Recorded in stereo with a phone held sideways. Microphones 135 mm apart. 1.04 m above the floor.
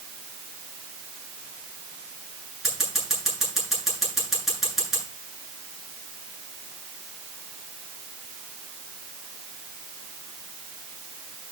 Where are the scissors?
Centre (ahead or behind), 9.5 m.